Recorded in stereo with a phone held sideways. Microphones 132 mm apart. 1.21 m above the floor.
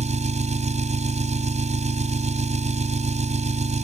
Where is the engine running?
60° right (ahead or behind).